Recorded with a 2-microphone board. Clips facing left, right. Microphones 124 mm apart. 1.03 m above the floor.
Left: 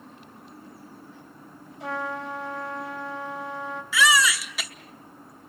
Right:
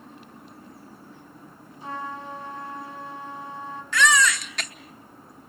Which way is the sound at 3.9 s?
5° left (ahead or behind).